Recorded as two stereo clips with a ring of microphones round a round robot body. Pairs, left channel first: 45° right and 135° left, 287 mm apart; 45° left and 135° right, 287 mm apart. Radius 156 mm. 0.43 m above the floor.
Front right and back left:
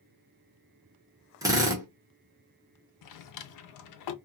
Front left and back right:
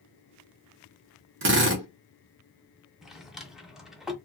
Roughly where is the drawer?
Ahead right.